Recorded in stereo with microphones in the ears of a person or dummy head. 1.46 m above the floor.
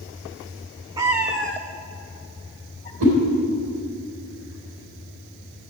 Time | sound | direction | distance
1.0 | a cat meowing | 20° right (ahead or behind) | 1.0 m
3.0 | a whoosh | 80° right | 4 m